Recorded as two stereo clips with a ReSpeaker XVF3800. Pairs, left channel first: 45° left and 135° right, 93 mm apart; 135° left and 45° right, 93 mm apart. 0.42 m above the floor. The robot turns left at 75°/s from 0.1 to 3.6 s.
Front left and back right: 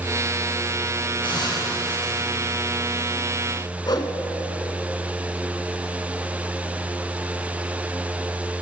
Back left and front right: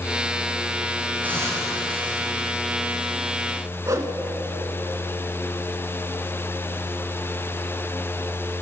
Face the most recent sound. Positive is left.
turn(degrees=10)